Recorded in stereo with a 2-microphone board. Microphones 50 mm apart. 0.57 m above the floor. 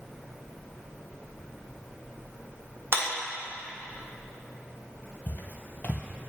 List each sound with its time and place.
2.9 s a clap: 50° right (ahead or behind), 1.3 m
5.3 s footsteps: 35° left (ahead or behind), 0.8 m